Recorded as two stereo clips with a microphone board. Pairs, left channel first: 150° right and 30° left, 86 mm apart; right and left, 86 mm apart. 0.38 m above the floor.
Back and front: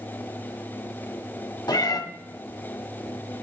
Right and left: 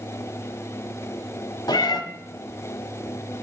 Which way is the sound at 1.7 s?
120° right.